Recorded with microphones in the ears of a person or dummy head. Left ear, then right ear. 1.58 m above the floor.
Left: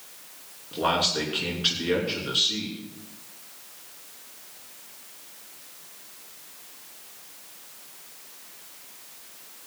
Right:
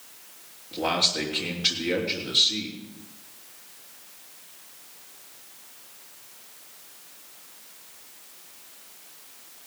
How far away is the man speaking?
About 5.5 m.